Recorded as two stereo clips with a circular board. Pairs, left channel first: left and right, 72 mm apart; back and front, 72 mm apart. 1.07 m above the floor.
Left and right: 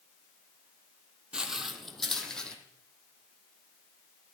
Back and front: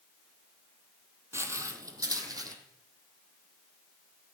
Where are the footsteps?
20° right, 1.3 m; by 2.5 s 10° left, 1.9 m.